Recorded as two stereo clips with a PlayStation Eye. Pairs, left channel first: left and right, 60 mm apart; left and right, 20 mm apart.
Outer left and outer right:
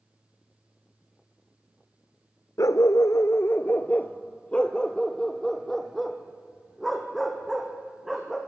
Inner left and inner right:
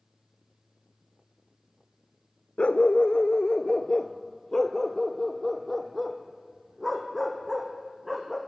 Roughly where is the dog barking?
Left.